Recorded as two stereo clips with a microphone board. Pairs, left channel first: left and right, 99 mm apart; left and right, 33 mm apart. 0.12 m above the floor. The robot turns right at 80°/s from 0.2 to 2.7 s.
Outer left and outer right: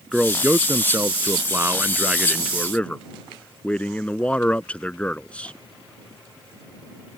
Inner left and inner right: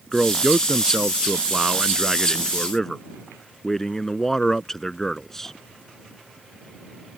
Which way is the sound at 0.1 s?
5° right (ahead or behind).